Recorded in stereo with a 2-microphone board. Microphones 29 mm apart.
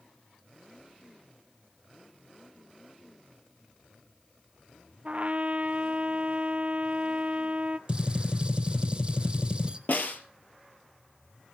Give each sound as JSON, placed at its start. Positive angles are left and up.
{"t": 5.0, "sound": "a trumpet", "side_deg": -45, "distance_m": 0.7}
{"t": 7.9, "sound": "a gunshot", "side_deg": -30, "distance_m": 1.7}
{"t": 9.9, "sound": "a snare drum", "side_deg": 60, "distance_m": 2.0}